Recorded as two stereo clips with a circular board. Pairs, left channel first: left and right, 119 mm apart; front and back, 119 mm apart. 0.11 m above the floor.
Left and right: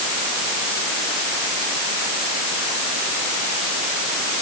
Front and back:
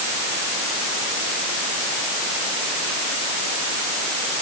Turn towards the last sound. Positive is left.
No sound to turn to.